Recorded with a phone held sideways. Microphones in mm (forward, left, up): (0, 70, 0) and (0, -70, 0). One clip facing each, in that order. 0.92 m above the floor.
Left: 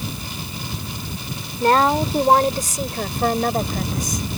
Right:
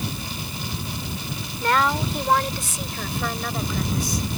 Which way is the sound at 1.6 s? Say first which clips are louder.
Left 5 dB; 35° left (ahead or behind).